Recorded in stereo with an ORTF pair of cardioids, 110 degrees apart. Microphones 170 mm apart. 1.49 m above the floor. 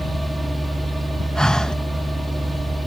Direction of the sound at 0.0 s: Straight ahead.